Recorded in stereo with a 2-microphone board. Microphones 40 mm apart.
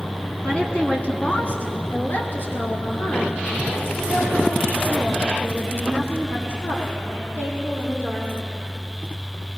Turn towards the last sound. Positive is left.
turn(degrees=75)  # may be behind; listen again after turning